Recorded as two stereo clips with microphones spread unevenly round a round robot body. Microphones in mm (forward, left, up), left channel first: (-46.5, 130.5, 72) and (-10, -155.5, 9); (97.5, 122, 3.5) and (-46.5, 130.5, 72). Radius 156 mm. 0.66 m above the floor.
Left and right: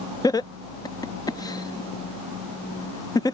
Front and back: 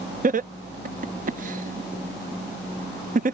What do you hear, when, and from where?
0.2 s laughter: 175° right